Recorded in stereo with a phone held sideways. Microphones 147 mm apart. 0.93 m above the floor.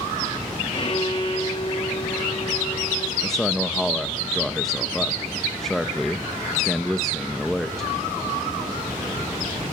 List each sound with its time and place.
0.7 s a violin: 40° left (ahead or behind), 1.3 m
3.2 s a man speaking: centre (ahead or behind), 0.8 m